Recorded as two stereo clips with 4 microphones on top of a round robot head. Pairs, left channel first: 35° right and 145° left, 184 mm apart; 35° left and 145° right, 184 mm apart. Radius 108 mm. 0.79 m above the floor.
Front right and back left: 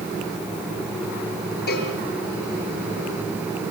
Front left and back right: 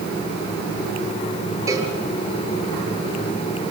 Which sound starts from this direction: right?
A cowbell, at 1.7 s.